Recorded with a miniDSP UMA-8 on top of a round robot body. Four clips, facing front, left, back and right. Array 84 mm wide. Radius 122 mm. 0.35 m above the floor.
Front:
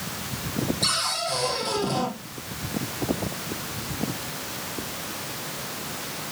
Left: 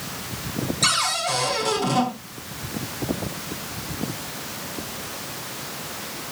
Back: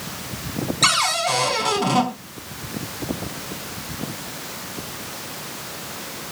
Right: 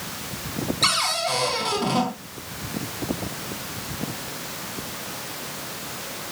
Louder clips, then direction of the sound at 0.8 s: Even, back 8 dB; 170° right.